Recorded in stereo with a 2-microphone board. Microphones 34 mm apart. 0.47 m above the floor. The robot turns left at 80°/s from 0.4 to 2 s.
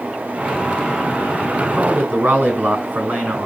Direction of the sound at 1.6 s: 25° right.